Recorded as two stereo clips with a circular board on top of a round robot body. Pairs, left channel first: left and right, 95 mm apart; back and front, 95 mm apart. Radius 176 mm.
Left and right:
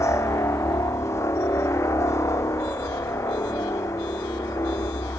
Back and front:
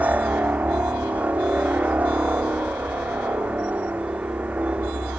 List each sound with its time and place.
0.0 s a helicopter: 60° left